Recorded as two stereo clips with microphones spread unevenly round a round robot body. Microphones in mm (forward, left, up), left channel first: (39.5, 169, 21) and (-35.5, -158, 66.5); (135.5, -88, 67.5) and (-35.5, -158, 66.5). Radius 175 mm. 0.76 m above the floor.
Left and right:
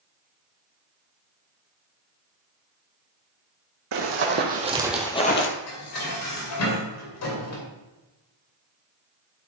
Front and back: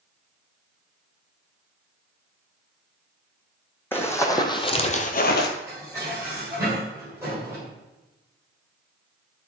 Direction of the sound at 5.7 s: 120° left.